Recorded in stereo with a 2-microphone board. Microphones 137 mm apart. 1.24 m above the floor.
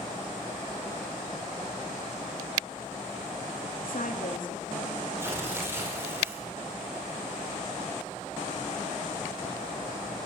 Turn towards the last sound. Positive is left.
turn(degrees=-15)  # may be behind; listen again after turning